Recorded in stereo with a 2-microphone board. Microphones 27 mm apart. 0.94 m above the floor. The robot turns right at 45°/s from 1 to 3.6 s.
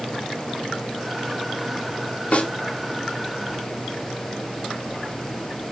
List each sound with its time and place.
2.3 s a snare drum: 55° left (ahead or behind), 3 m; by 2.5 s 45° left (ahead or behind), 3 m